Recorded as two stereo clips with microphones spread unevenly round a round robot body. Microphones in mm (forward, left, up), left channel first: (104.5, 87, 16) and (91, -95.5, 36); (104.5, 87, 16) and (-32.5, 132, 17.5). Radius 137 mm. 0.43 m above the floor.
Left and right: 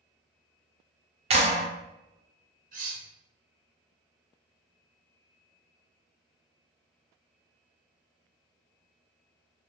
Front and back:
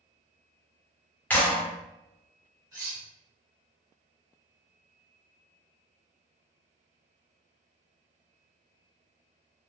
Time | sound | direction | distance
1.3 | a clap | 80° right | 0.8 m
2.7 | cutlery clinking | 135° right | 0.7 m